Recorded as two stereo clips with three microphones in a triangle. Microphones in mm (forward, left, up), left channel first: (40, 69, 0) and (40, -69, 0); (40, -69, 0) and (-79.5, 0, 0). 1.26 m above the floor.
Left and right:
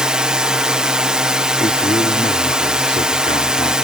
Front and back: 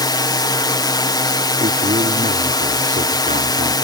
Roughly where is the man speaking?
Behind left.